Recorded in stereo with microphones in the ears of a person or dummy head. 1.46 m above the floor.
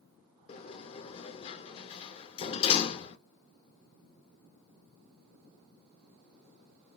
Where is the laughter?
No laughter in this recording.